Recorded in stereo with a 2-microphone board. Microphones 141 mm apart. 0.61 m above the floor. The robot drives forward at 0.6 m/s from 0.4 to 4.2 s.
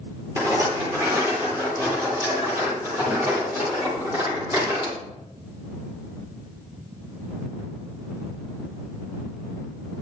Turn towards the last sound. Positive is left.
turn(degrees=-15)  # may be behind; listen again after turning